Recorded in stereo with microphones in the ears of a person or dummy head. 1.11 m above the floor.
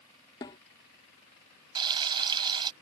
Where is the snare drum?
10° left (ahead or behind).